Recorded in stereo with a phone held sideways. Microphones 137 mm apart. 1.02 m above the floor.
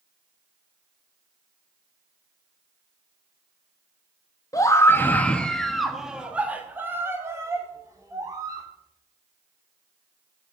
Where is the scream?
25° left (ahead or behind), 1.4 m; by 8.7 s 30° right (ahead or behind), 3 m.